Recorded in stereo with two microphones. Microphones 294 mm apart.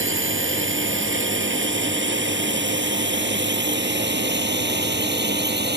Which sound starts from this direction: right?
A drone, at 0.0 s.